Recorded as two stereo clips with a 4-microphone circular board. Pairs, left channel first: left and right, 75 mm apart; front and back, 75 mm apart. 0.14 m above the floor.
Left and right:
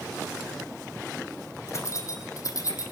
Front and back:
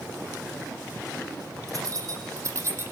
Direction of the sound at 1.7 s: 140° left.